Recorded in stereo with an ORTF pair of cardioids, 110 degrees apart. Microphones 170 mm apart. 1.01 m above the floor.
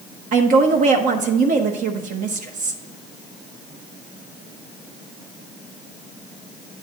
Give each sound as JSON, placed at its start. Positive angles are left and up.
{"t": 0.3, "sound": "a woman speaking", "azimuth_deg": -50, "distance_m": 0.9}